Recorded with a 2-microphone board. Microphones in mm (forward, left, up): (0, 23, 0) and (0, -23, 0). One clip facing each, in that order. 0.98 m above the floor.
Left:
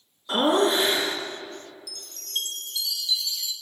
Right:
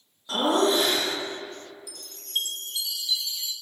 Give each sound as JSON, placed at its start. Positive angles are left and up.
{"t": 0.3, "sound": "laughter", "side_deg": 35, "distance_m": 1.6}
{"t": 1.9, "sound": "a chime", "side_deg": -20, "distance_m": 0.8}